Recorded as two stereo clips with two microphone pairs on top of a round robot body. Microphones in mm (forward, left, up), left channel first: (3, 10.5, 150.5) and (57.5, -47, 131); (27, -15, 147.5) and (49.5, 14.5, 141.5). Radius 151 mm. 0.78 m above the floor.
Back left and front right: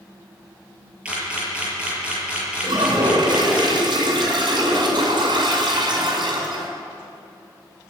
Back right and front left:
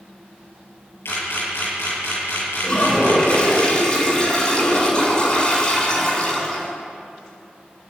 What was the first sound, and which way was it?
A camera shutter, 125° right.